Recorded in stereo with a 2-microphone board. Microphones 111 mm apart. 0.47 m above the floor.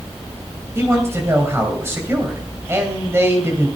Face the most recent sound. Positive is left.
turn(degrees=-25)  # may be behind; listen again after turning